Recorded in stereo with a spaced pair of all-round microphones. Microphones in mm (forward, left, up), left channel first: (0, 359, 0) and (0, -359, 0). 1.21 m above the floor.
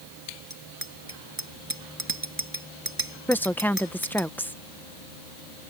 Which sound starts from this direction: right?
A bicycle bell, at 0.5 s.